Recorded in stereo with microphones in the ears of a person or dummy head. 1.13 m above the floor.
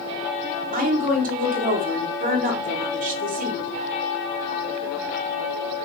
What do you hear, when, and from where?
0.7 s a woman speaking: 40° right (ahead or behind), 0.9 m